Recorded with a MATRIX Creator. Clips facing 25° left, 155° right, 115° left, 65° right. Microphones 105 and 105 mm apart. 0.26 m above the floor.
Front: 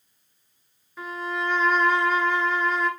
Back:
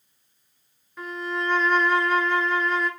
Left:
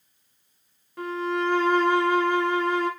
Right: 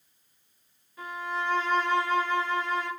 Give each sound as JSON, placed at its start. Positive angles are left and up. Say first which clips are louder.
{"t": 1.0, "sound": "a violin", "louder": "even, left 7 dB", "azimuth_deg": 110, "distance_m": 1.1}